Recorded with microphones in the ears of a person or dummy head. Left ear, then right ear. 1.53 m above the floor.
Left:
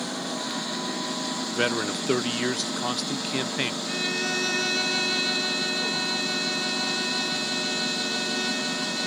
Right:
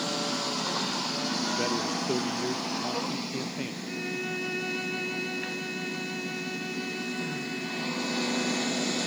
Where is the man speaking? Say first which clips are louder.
Left 3 dB; 65° left (ahead or behind).